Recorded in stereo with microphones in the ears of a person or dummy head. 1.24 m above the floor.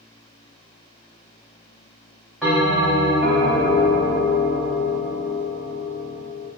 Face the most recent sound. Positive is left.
turn(degrees=5)  # may be behind; listen again after turning